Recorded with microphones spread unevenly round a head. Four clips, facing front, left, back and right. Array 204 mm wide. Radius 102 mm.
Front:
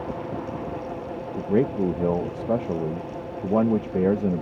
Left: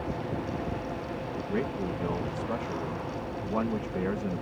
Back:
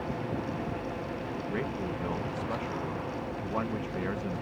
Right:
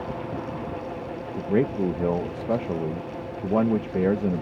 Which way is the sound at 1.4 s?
35° right.